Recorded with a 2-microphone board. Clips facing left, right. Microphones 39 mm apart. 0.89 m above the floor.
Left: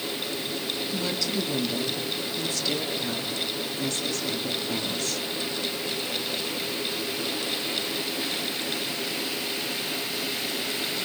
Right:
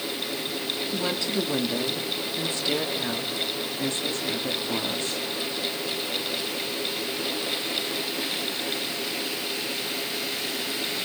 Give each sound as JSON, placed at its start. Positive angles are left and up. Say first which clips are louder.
{"t": 0.9, "sound": "a woman speaking", "louder": "right 2 dB", "side_deg": -30, "distance_m": 2.0}